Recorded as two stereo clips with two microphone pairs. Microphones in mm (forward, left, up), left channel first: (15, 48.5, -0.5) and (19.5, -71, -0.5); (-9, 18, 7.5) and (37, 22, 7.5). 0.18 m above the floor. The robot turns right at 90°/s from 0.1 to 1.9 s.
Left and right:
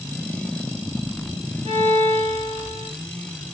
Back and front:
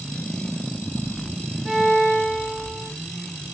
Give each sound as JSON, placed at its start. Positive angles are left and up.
{"t": 1.6, "sound": "a violin", "azimuth_deg": -90, "distance_m": 2.5}